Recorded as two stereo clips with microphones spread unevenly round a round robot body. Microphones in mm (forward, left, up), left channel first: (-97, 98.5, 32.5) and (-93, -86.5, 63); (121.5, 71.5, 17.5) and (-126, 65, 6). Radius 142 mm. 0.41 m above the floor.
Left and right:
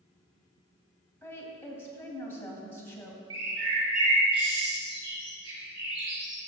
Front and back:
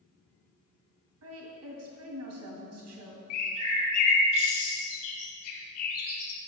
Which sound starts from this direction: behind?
A woman speaking, at 1.2 s.